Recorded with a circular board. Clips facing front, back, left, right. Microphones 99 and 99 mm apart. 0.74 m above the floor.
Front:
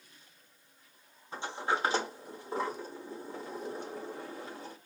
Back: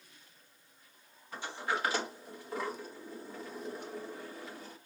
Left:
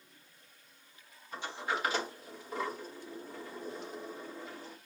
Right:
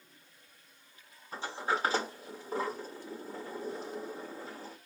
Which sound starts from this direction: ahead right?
A sliding door, at 1.3 s.